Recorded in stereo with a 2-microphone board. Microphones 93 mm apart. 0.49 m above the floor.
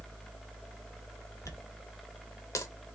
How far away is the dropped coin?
About 0.8 m.